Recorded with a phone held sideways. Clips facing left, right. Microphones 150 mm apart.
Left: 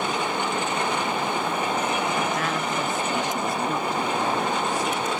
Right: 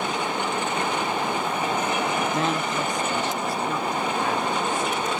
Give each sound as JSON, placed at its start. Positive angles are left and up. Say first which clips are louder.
{"t": 2.3, "sound": "a woman speaking", "louder": "right 2 dB", "side_deg": -30, "distance_m": 0.6}